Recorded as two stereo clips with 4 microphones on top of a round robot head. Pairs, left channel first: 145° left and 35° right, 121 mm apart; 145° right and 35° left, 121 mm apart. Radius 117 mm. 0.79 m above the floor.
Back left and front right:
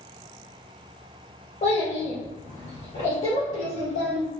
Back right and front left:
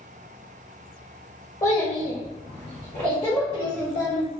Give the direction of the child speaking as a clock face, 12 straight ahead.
7 o'clock.